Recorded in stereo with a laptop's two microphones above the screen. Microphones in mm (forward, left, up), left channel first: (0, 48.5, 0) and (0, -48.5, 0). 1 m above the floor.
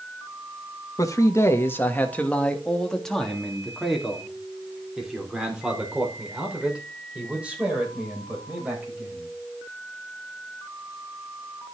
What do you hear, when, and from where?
1.0 s a man speaking: 35° left (ahead or behind), 1.5 m; by 9.3 s 15° right (ahead or behind), 7 m